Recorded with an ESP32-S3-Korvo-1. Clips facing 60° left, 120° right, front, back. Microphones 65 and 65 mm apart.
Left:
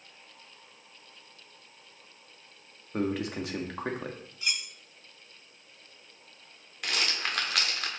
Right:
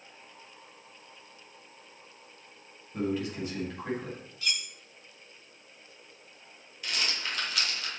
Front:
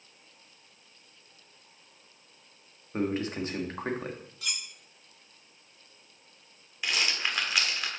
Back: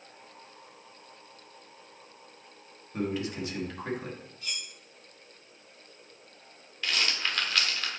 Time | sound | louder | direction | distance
2.9 | a man speaking | left 1 dB, front 2 dB | 50° left | 1.4 m
4.4 | cutlery clinking | left 1 dB, front 3 dB | 10° right | 0.8 m
6.8 | a rattle | left 2 dB, even | 75° left | 1.3 m